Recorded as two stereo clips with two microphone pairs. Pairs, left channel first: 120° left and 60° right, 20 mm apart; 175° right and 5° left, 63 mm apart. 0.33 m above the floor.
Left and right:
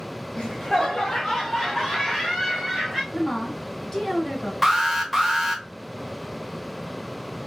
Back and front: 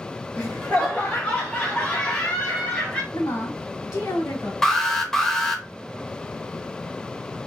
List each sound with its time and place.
0.3 s laughter: 155° left, 1.6 m; by 3.0 s 115° right, 1.9 m
3.1 s a woman speaking: 175° right, 3 m
4.6 s an alarm: 105° right, 1.0 m